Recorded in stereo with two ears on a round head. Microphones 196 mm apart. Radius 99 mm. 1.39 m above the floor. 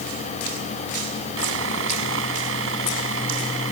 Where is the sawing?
60° right (ahead or behind).